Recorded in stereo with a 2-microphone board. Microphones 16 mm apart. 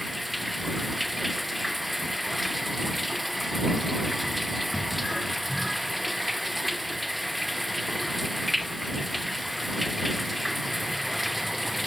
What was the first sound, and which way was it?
Running water, centre (ahead or behind).